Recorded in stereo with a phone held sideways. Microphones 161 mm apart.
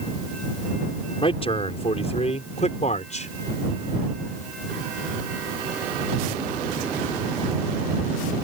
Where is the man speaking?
40° left (ahead or behind); by 3.3 s 55° left (ahead or behind).